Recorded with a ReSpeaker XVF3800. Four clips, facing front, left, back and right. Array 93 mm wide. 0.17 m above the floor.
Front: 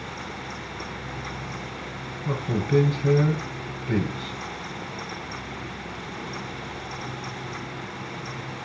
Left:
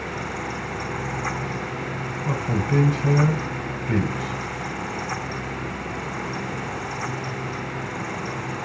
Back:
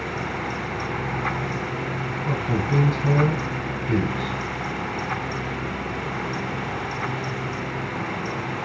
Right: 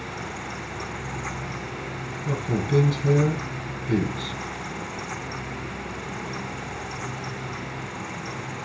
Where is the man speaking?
90° left, 1.5 m.